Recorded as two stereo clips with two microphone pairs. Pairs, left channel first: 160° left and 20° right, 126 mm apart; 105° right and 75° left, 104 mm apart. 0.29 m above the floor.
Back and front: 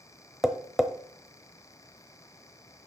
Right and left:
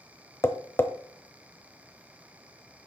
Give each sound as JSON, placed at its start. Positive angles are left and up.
{"t": 0.4, "sound": "tapping", "azimuth_deg": -100, "distance_m": 0.9}